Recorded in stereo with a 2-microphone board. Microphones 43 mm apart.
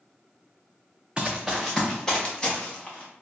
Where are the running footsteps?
20° right (ahead or behind), 0.6 m; by 3.2 s 25° left (ahead or behind), 1.8 m.